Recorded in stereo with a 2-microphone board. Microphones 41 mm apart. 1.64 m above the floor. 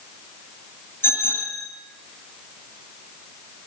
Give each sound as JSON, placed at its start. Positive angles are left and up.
{"t": 1.0, "sound": "a bicycle bell", "side_deg": 60, "distance_m": 7.0}